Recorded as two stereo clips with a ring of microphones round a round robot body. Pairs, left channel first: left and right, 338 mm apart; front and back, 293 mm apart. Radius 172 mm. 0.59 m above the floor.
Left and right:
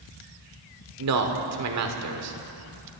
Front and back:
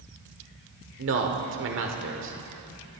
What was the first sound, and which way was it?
A man speaking, 130° right.